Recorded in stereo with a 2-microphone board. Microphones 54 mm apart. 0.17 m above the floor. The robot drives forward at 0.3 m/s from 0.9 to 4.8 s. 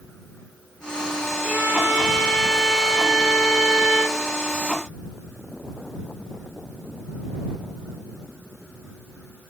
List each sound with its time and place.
1.4 s a violin: 15° right (ahead or behind), 1.7 m; by 4.2 s 20° right (ahead or behind), 1.5 m